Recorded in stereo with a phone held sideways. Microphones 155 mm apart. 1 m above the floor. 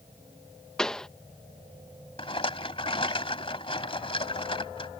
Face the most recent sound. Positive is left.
turn(degrees=35)  # may be behind; listen again after turning